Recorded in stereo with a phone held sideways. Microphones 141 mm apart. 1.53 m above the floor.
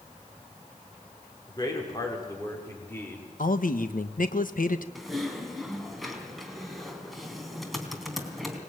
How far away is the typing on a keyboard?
About 3 m.